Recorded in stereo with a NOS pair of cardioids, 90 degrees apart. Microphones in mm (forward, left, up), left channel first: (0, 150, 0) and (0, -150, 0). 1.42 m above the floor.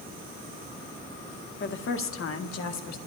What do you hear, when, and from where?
1.6 s a woman speaking: 40° left, 1.6 m; by 3.0 s 65° left, 1.6 m